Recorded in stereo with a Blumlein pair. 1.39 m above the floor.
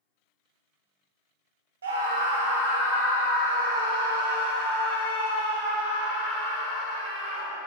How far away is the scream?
About 0.6 m.